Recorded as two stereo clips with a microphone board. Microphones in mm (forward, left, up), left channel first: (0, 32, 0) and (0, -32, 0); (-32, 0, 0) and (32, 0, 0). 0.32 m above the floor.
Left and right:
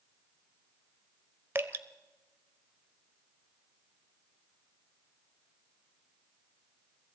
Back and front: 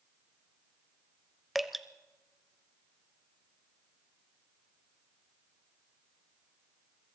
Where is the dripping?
90° right, 0.6 m.